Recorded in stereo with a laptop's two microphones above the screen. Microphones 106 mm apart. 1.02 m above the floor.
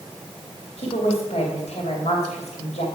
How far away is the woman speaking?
About 2.5 m.